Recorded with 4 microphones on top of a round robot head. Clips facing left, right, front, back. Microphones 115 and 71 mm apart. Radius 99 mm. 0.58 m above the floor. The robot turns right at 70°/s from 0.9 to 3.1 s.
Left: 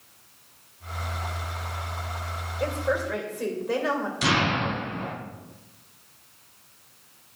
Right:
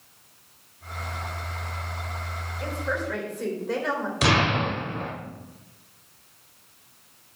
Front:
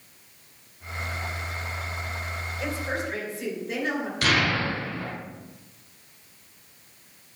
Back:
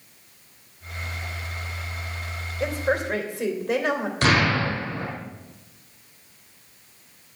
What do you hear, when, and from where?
2.6 s a woman speaking: 140° left, 3 m; by 4.1 s 175° left, 3 m
4.2 s an explosion: 120° right, 2.5 m